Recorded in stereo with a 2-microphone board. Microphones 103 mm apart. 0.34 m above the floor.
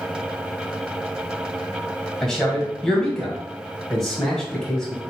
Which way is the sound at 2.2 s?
5° left (ahead or behind).